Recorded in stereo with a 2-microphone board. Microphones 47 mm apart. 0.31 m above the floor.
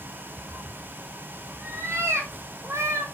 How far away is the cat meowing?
About 1.5 m.